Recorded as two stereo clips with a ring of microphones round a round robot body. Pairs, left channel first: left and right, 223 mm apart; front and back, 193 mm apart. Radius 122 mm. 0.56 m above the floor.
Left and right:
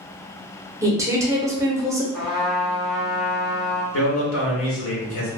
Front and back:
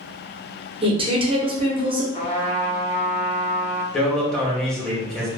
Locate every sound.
0.8 s a woman speaking: 155° right, 0.8 m
2.1 s a trumpet: straight ahead, 0.8 m
3.9 s a man speaking: 85° left, 1.4 m